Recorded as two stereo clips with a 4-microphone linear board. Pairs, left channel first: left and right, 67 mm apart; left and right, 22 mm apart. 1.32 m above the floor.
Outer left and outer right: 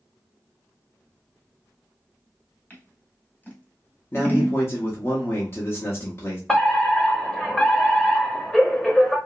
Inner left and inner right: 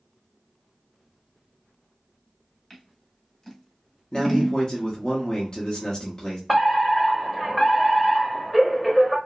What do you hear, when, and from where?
2.7 s scissors: 30° left (ahead or behind), 1.3 m
4.1 s a man speaking: 40° left (ahead or behind), 0.9 m
6.5 s a fire alarm: 10° left (ahead or behind), 0.7 m